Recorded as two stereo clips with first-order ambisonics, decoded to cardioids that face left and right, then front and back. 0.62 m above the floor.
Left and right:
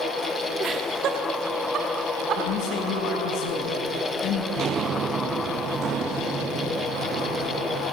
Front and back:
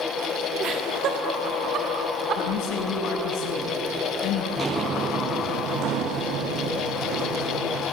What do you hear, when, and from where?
0.6 s laughter: 140° right, 1.5 m; by 2.4 s 130° right, 2 m
2.4 s a man speaking: 40° left, 4.5 m
4.6 s footsteps: 115° right, 0.7 m; by 7.8 s 150° right, 3 m